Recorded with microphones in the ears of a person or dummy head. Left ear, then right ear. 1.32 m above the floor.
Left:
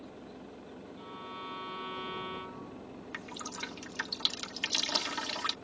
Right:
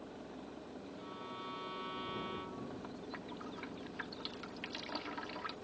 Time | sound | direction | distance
1.0 | a violin | 25° left (ahead or behind) | ?
3.1 | dripping | 85° left | ?